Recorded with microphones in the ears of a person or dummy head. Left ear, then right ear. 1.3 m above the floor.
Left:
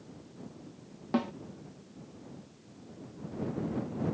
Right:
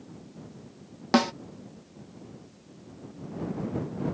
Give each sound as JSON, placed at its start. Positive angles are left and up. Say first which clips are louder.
{"t": 1.1, "sound": "a snare drum", "louder": "right 9 dB", "side_deg": -70}